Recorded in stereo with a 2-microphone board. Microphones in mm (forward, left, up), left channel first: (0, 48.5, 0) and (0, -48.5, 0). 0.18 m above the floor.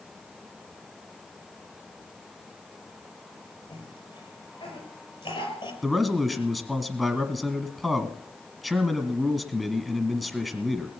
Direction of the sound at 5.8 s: Centre (ahead or behind).